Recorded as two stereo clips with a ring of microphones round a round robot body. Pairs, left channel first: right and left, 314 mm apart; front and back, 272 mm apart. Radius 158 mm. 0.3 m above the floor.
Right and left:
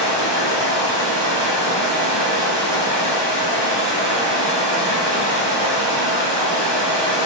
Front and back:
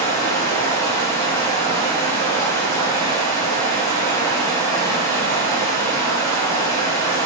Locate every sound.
0.0 s running water: 75° left, 2 m